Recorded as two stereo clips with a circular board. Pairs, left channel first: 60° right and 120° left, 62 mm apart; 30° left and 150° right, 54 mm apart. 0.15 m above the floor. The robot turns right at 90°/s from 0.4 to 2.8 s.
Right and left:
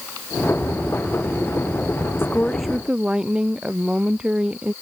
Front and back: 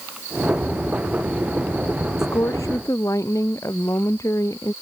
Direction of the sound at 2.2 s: 10° right.